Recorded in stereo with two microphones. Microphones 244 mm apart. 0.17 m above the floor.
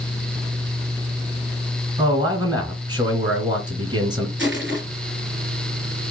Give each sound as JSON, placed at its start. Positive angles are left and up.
{"t": 2.0, "sound": "a man speaking", "side_deg": -15, "distance_m": 1.7}
{"t": 4.4, "sound": "crushing", "side_deg": -50, "distance_m": 2.5}